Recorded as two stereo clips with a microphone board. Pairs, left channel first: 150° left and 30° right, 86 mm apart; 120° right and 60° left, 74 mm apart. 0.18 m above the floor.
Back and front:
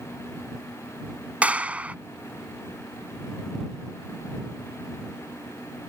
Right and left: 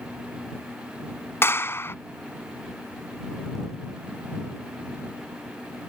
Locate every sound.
1.4 s a clap: 95° right